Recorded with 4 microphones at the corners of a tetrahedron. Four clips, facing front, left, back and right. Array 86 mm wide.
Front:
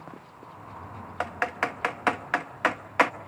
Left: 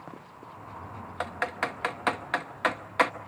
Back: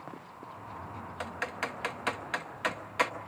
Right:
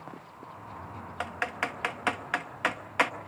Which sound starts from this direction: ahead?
Typing on a keyboard, at 1.2 s.